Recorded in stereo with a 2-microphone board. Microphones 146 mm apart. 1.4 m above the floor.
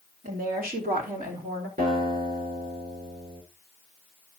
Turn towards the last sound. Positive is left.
turn(degrees=-80)